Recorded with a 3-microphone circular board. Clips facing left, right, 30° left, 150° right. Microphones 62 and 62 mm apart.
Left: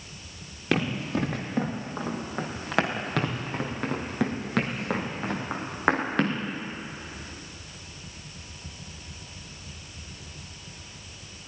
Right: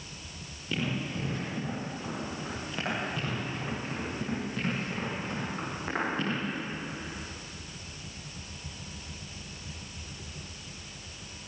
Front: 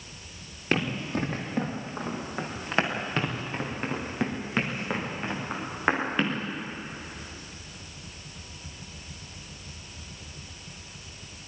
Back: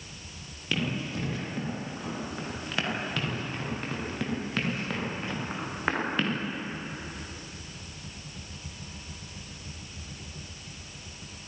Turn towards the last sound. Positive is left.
turn(degrees=105)